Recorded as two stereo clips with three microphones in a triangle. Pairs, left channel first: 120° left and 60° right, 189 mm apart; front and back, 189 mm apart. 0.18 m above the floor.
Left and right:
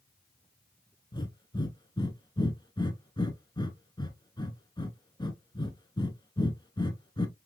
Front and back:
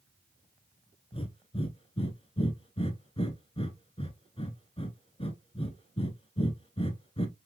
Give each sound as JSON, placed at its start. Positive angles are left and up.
{"t": 1.1, "sound": "breathing", "azimuth_deg": 55, "distance_m": 0.9}